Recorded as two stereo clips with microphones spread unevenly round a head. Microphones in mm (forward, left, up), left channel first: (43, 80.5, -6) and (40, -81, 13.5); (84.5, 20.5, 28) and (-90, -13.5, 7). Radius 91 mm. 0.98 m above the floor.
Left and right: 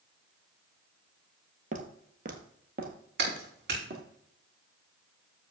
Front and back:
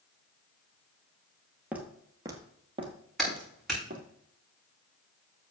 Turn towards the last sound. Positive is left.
turn(degrees=-80)